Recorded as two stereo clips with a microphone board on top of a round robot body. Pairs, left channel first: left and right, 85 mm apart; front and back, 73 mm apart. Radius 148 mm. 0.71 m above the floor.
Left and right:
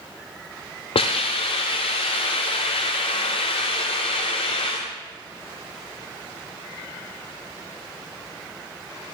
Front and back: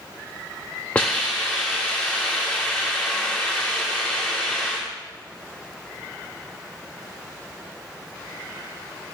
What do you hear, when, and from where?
0.9 s a hiss: 75° left, 0.6 m